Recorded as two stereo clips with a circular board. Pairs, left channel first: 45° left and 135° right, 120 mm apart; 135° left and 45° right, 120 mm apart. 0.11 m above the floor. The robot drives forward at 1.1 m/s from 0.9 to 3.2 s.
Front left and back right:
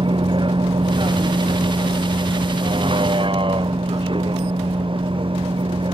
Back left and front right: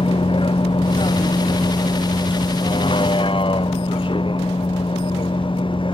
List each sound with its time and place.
0.0 s a vehicle: straight behind